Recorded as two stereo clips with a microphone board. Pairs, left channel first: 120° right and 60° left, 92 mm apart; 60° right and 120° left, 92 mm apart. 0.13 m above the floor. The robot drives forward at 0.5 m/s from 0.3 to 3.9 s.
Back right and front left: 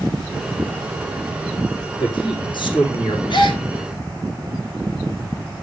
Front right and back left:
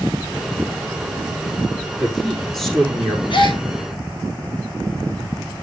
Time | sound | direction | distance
2.0 | a man speaking | 145° right | 6 m
3.3 | a gasp | 90° right | 4.5 m